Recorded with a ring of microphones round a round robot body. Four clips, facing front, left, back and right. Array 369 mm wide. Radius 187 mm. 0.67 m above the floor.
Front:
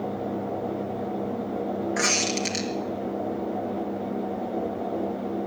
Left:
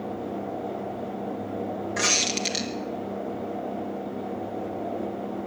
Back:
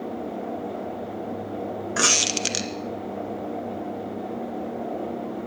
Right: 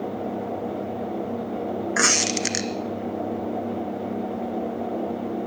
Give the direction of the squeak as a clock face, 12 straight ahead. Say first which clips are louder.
Right 5 dB, even; 5 o'clock.